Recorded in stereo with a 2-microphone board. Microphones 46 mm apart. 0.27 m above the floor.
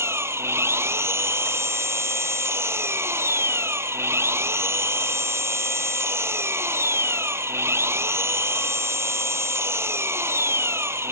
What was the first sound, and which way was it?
An engine running, 75° right (ahead or behind).